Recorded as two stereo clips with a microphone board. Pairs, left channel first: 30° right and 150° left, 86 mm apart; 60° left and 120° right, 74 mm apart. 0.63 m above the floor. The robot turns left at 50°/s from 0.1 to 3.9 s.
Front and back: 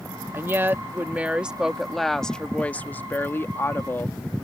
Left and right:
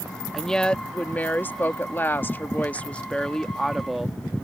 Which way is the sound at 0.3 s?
135° left.